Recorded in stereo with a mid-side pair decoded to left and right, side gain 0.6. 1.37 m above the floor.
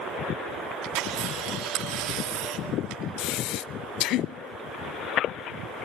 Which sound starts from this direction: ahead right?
A camera shutter, at 0.8 s.